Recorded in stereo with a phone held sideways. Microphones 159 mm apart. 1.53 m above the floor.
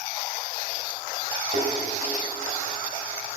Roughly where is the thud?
Right.